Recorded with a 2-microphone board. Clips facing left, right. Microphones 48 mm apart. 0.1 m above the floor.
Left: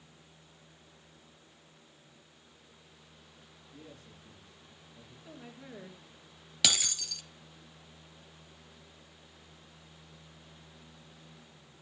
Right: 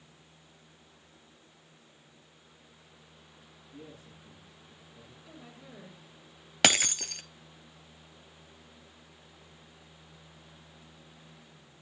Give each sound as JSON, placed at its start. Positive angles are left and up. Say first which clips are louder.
{"t": 3.7, "sound": "a man speaking", "louder": "right 3 dB", "side_deg": -15, "distance_m": 7.5}
{"t": 5.2, "sound": "a woman speaking", "louder": "left 3 dB", "side_deg": 25, "distance_m": 2.0}
{"t": 6.6, "sound": "breaking glass", "louder": "right 6 dB", "side_deg": -50, "distance_m": 0.6}